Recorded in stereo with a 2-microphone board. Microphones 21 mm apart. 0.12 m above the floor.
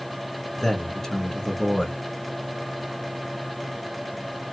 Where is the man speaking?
15° left (ahead or behind), 1.2 m.